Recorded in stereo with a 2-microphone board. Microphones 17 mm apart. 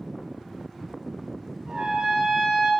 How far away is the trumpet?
About 3.5 m.